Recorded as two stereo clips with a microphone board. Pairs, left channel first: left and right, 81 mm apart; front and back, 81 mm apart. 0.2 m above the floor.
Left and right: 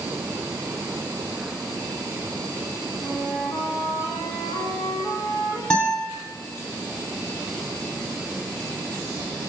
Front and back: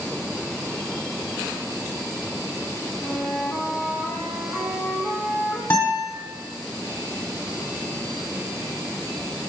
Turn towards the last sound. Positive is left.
turn(degrees=35)